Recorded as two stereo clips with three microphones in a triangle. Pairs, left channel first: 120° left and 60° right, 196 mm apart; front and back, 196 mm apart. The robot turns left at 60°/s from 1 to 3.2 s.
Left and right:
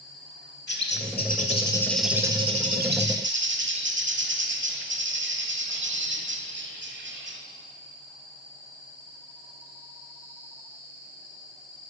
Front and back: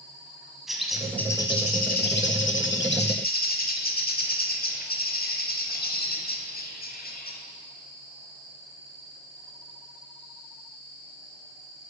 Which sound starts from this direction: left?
A bird, at 0.7 s.